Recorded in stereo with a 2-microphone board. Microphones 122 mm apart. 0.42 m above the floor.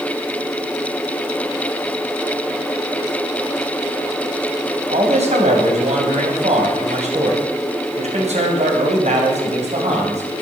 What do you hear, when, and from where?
4.9 s a man speaking: 65° right (ahead or behind), 3 m